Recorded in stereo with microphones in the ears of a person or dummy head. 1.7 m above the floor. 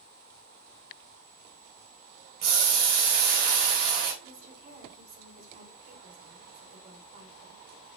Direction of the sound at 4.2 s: 45° right (ahead or behind).